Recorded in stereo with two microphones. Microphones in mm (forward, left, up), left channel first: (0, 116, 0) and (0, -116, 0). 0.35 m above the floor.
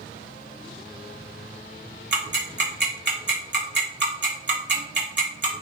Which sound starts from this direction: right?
Ticking, at 2.1 s.